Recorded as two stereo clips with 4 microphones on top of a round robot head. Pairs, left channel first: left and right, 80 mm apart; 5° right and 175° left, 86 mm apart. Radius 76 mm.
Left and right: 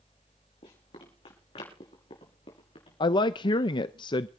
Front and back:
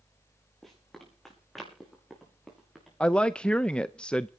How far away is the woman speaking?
About 0.5 m.